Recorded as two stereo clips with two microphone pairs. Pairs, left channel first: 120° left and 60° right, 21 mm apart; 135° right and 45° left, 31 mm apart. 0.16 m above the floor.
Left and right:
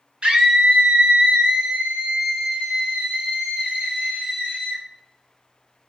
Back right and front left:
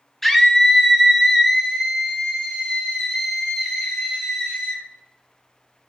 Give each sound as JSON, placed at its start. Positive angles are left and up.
{"t": 0.2, "sound": "a scream", "azimuth_deg": -50, "distance_m": 1.8}